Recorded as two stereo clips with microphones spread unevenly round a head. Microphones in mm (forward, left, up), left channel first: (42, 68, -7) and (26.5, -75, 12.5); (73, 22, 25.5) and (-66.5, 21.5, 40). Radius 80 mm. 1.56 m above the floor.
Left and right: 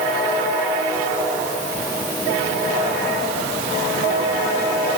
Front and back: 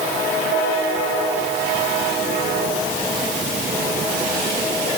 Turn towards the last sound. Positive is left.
No sound to turn to.